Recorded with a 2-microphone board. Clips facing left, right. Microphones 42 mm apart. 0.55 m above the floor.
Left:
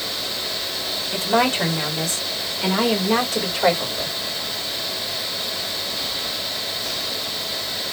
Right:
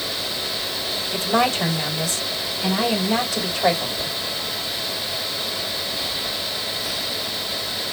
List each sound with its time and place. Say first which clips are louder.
1.1 s a woman speaking: left 1 dB; 45° left (ahead or behind), 2.5 m; by 4.2 s 60° left (ahead or behind), 2 m